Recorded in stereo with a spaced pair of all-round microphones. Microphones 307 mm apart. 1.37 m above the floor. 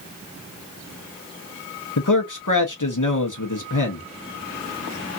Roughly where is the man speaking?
Left.